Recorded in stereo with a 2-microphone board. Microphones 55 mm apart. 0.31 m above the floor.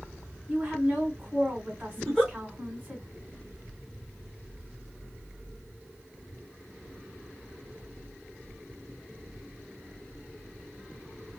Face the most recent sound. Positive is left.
turn(degrees=5)  # may be behind; listen again after turning